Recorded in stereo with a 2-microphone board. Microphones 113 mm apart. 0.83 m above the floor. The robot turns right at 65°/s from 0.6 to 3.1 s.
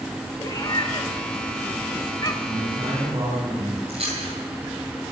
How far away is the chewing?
About 9 m.